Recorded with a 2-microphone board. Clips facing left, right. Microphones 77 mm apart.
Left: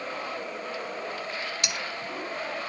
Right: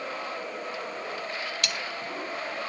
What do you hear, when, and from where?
1.6 s cutlery clinking: 20° left (ahead or behind)